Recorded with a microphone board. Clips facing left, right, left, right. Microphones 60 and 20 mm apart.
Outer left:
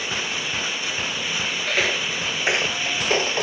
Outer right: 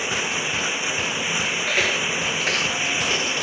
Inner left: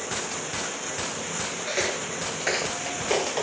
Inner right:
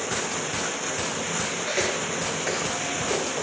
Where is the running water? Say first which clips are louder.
Outer right 2 dB, inner right 3 dB; 15° right (ahead or behind).